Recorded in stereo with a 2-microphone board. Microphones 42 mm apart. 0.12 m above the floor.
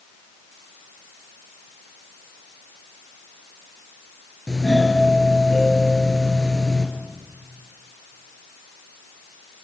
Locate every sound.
4.5 s a doorbell: 10° left (ahead or behind), 2 m